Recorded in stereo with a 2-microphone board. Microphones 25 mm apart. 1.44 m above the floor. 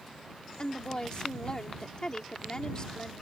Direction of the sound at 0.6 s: 30° left (ahead or behind).